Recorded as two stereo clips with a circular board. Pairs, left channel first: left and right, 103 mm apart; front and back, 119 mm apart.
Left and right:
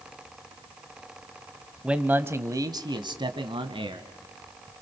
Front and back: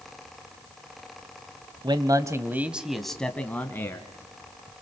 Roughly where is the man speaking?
Behind.